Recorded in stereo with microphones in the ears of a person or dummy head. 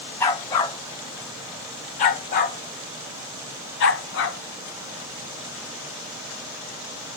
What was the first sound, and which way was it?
A dog barking, 15° left (ahead or behind).